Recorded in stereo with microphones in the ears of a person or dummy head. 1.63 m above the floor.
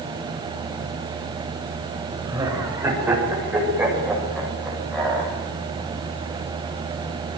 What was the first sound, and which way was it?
Laughter, 15° right (ahead or behind).